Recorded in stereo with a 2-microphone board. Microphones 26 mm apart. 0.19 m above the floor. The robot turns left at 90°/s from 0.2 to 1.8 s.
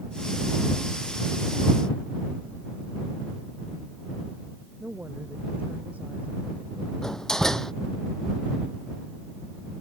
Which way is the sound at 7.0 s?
25° left (ahead or behind).